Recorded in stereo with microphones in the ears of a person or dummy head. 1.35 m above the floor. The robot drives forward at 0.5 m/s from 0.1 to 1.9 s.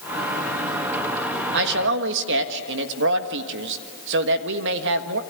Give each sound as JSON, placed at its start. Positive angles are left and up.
{"t": 1.5, "sound": "a man speaking", "side_deg": -60, "distance_m": 1.7}